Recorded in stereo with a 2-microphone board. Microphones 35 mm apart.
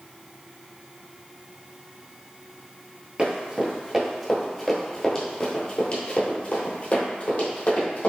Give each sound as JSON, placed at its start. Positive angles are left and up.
{"t": 3.2, "sound": "running footsteps", "side_deg": -20, "distance_m": 1.6}